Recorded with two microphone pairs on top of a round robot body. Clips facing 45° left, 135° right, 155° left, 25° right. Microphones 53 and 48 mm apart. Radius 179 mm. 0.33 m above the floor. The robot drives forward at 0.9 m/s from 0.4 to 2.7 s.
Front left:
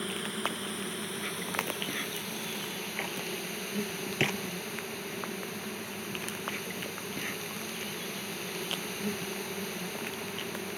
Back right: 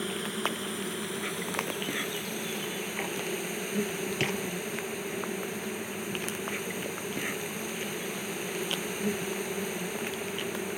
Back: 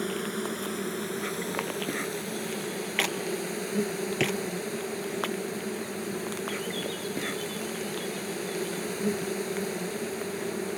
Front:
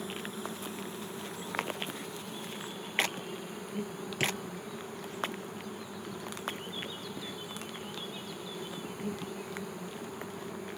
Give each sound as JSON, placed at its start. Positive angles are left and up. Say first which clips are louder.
{"t": 0.0, "sound": "an insect", "louder": "back right 2 dB, back 8 dB", "azimuth_deg": 135}
{"t": 4.2, "sound": "a drawer", "louder": "front left 2 dB, back 4 dB", "azimuth_deg": 105}